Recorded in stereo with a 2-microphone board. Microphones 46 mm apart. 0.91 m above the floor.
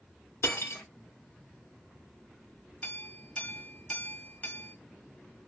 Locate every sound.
0.4 s cutlery clinking: 70° left (ahead or behind), 0.7 m
2.8 s a clink: 35° left (ahead or behind), 0.7 m